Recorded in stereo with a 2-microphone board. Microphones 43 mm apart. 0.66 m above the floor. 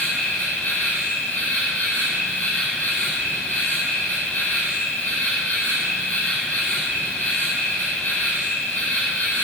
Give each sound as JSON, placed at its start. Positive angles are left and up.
{"t": 0.0, "sound": "an insect", "side_deg": 40, "distance_m": 4.0}